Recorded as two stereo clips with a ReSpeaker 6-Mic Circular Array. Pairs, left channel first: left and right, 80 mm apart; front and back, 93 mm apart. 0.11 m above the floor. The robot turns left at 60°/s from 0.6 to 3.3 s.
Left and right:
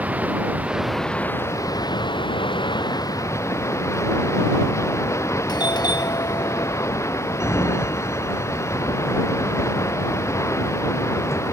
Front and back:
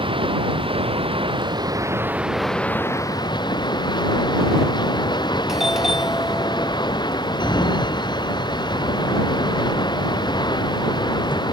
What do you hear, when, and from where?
0.0 s running water: 160° right; by 11.5 s 35° left
5.5 s a doorbell: 95° left
7.4 s a sliding door: 35° left